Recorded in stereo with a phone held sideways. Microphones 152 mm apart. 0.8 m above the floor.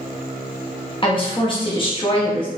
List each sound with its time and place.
1.0 s a woman speaking: 35° left (ahead or behind), 0.9 m